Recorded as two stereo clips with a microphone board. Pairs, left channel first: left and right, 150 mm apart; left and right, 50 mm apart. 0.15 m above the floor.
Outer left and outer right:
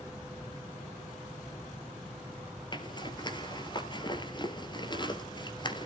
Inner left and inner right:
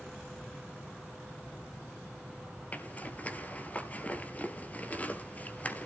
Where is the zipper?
30° left (ahead or behind), 1.9 m.